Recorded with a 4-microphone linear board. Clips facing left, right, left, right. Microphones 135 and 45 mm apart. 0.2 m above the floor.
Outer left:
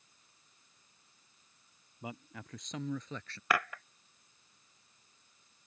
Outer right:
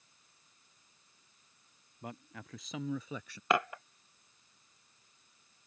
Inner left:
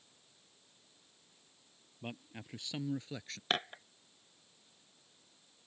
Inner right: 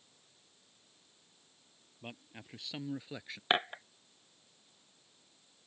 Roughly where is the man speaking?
Centre.